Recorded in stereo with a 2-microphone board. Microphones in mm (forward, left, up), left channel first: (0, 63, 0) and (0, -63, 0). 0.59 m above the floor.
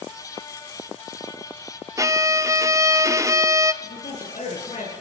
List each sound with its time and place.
2.0 s a violin: 25° right (ahead or behind), 0.7 m
3.8 s a man speaking: 70° left (ahead or behind), 8.5 m